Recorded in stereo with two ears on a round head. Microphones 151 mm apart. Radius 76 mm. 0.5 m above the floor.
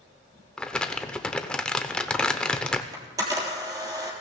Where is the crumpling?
5° left (ahead or behind), 0.7 m.